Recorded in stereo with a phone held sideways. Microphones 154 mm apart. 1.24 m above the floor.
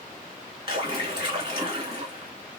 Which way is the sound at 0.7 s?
35° right (ahead or behind).